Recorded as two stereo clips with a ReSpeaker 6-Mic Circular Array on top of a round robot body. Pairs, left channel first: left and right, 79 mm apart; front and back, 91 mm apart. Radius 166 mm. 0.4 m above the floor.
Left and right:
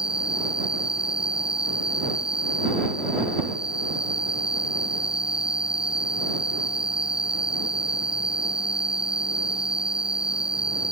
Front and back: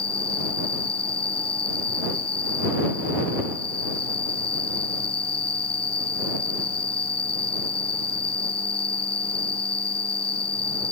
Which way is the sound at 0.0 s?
10° right.